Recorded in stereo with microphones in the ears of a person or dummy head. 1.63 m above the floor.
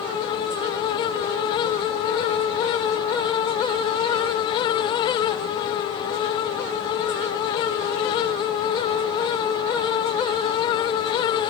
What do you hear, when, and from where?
Only background noise.